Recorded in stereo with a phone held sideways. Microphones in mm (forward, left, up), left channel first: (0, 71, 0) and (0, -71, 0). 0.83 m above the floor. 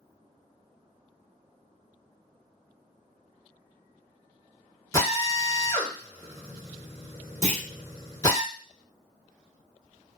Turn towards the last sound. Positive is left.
turn(degrees=-55)  # may be behind; listen again after turning